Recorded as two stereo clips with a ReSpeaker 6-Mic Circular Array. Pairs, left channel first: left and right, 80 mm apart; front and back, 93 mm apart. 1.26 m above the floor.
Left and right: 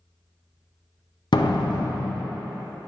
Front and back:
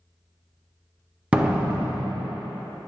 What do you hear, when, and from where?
1.3 s a door slam: 105° left, 0.7 m